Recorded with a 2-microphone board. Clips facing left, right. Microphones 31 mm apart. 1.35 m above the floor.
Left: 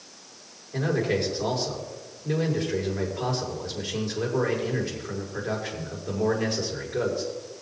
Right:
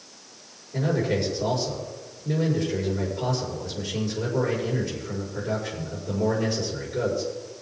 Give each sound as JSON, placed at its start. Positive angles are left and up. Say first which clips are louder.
{"t": 0.7, "sound": "a man speaking", "louder": "even", "side_deg": 50, "distance_m": 4.5}